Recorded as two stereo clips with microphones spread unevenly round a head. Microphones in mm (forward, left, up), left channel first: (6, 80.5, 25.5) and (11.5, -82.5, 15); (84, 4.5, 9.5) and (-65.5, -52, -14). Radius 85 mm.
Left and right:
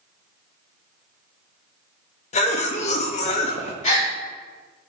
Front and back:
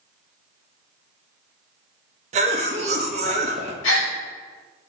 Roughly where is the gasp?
Ahead left.